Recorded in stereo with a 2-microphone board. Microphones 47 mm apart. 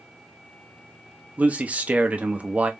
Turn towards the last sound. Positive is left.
turn(degrees=-30)  # may be behind; listen again after turning